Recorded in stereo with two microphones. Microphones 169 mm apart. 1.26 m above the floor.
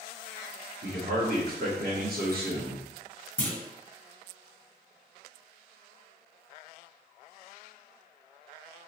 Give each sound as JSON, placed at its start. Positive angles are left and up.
{"t": 0.8, "sound": "a man speaking", "side_deg": -65, "distance_m": 1.3}
{"t": 3.4, "sound": "a clunk", "side_deg": 10, "distance_m": 1.0}